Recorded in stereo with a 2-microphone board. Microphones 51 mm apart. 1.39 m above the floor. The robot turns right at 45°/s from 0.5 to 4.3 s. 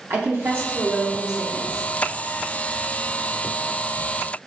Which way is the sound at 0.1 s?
50° right.